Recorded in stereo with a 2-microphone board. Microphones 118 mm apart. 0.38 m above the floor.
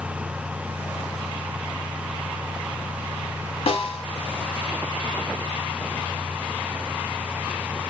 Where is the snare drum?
60° left (ahead or behind), 1.0 m.